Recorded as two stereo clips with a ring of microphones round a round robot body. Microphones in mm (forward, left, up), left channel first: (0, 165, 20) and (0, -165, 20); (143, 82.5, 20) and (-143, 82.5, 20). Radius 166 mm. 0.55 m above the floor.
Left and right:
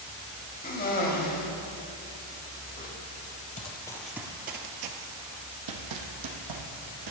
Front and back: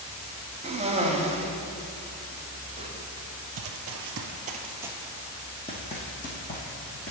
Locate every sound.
0.6 s a cough: 130° left, 1.3 m
3.6 s running footsteps: 155° left, 0.8 m; by 7.1 s 65° right, 2.0 m